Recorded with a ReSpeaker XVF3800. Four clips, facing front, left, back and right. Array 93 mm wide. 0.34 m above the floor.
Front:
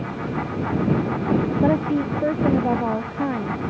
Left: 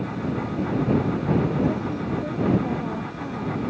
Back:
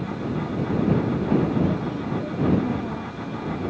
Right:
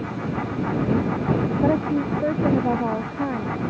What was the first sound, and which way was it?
A woman speaking, 35° right.